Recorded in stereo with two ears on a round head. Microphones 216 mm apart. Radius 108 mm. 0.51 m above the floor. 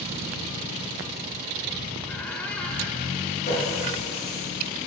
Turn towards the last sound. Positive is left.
turn(degrees=30)  # may be behind; listen again after turning